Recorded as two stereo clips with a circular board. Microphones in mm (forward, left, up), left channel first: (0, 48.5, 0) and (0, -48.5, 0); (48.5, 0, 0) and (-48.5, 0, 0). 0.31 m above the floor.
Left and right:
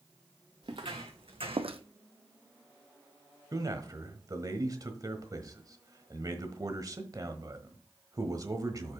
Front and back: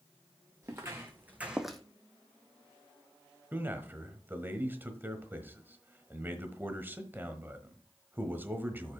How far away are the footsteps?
About 2 m.